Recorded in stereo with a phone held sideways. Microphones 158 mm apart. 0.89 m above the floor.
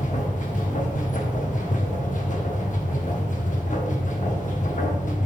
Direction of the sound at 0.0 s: 55° left (ahead or behind).